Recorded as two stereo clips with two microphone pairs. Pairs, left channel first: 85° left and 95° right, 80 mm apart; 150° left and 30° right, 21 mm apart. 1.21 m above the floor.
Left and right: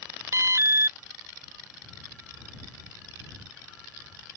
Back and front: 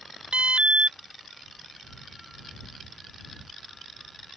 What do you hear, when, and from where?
0.3 s an alarm: 35° right